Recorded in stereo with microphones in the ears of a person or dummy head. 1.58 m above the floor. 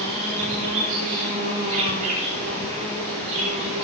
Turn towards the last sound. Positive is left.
turn(degrees=-45)  # may be behind; listen again after turning